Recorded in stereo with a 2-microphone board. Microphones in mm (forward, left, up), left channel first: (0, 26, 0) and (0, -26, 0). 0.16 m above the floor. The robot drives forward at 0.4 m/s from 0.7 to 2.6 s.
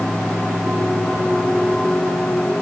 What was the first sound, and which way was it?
Only background noise.